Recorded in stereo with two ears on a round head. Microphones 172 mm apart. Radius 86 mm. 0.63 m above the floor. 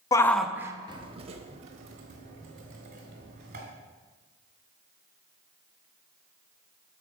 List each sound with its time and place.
0.1 s a shout: 20° left (ahead or behind), 0.5 m; by 3.6 s 45° right (ahead or behind), 2.5 m